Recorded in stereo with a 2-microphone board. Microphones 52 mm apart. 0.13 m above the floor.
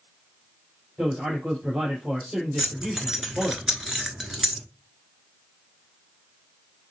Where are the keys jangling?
10° right (ahead or behind), 1.1 m.